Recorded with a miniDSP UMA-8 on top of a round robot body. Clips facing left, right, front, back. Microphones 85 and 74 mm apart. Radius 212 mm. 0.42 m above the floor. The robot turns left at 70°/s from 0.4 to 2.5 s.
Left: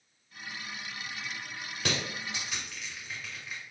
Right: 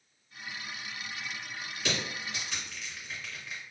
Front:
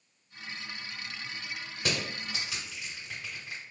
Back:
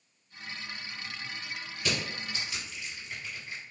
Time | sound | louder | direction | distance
1.8 | crushing | left 1 dB, even | 55° left | 1.2 m